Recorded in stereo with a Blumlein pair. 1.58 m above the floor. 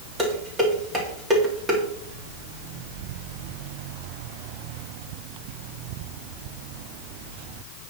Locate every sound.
0.2 s dishes clattering: 15° right, 2.5 m